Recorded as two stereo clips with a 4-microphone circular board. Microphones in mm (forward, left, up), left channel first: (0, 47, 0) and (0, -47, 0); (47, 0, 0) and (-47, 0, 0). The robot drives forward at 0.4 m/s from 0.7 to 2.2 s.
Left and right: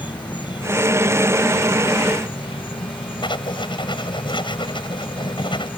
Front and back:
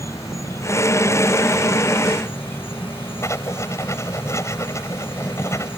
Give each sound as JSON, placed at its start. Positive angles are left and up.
{"t": 0.0, "sound": "an insect", "azimuth_deg": 55}
{"t": 3.2, "sound": "writing", "azimuth_deg": 60}